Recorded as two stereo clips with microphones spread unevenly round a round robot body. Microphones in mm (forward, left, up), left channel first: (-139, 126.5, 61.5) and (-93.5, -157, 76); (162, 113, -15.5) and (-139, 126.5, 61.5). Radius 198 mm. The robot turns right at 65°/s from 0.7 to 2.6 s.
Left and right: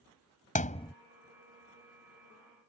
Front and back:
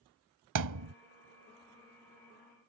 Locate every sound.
0.6 s a thud: 165° left; by 0.9 s straight behind